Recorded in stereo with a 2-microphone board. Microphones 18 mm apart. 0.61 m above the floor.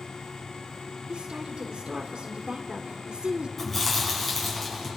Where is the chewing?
15° left (ahead or behind), 6 m.